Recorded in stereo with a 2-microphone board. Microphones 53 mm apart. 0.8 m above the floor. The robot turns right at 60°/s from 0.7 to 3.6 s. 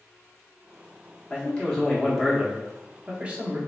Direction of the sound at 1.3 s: 20° left (ahead or behind).